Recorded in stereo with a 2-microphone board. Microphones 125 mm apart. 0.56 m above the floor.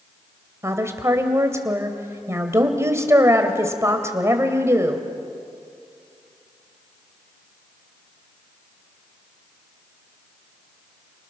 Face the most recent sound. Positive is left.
turn(degrees=-25)  # may be behind; listen again after turning